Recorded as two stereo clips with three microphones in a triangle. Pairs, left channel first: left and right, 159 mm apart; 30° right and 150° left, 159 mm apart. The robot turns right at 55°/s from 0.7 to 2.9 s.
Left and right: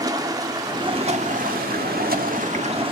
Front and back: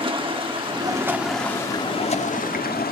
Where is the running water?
155° right, 1.3 m; by 2.9 s 35° right, 1.3 m.